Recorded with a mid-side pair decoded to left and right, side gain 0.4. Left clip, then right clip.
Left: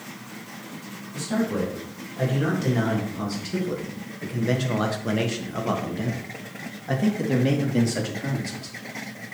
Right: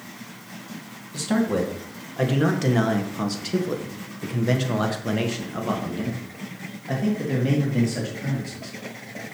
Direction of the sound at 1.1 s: 70° right.